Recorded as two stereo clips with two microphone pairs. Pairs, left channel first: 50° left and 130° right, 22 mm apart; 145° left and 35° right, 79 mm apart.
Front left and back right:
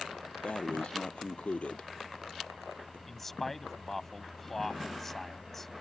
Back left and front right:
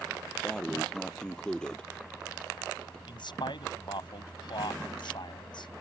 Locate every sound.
0.4 s breathing: 65° left
3.1 s a man speaking: 130° left